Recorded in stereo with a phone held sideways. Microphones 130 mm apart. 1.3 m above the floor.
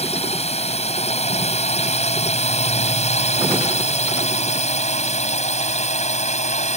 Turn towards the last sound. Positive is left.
turn(degrees=60)  # may be behind; listen again after turning